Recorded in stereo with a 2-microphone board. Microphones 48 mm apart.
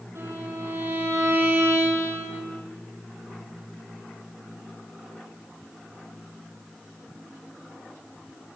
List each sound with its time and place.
0.1 s a violin: 85° right, 6.5 m